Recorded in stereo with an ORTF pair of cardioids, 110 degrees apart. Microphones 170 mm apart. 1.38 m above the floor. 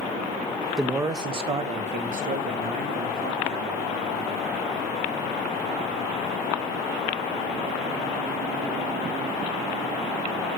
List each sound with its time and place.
0.8 s a man speaking: straight ahead, 0.8 m; by 3.9 s 60° right, 3.5 m